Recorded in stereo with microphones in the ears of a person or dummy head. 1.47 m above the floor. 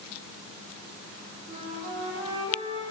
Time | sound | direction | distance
1.5 | a flute | 30° right (ahead or behind) | 5.5 m